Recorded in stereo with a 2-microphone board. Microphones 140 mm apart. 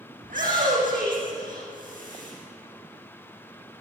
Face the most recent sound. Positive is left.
turn(degrees=-75)  # may be behind; listen again after turning